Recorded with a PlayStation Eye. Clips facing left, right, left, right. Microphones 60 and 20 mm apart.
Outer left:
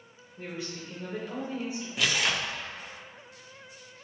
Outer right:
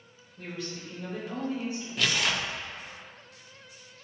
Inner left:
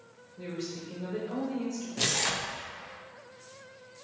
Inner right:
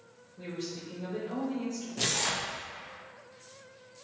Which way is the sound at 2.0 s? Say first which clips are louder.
Even, inner left 1 dB; 10° left (ahead or behind).